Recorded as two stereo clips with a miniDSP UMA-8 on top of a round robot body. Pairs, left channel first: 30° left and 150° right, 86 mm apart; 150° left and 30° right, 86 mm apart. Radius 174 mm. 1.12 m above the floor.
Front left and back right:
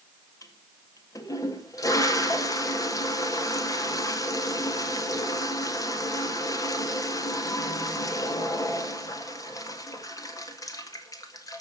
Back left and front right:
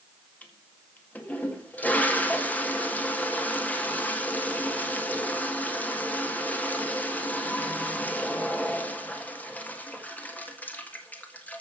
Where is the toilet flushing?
80° left, 2.0 m.